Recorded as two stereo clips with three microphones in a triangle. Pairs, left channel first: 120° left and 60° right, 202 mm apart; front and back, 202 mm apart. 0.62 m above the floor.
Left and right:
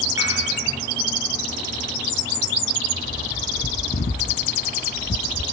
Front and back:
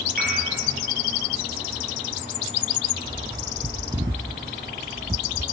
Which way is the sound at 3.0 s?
120° left.